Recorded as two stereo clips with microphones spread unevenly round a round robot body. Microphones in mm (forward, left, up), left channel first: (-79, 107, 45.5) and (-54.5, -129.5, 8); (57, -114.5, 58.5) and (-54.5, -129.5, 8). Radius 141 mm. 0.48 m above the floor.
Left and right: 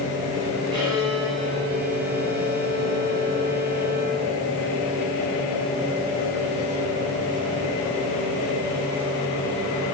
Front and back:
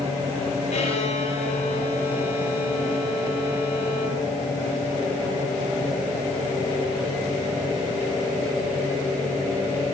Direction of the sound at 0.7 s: 10° right.